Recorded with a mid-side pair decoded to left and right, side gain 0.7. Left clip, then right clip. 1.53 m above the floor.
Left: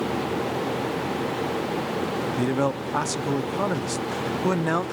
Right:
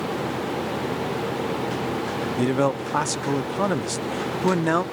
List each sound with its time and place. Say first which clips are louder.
2.4 s a man speaking: right 4 dB; 15° right, 0.5 m